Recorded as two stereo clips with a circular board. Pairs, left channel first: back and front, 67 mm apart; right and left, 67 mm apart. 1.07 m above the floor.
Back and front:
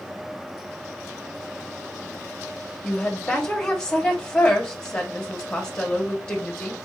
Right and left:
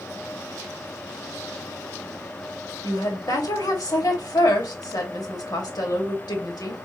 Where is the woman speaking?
105° right, 1.8 m.